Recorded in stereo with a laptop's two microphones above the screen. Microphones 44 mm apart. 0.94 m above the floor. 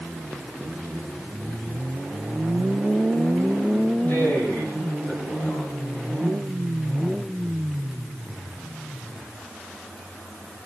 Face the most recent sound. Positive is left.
turn(degrees=40)  # may be behind; listen again after turning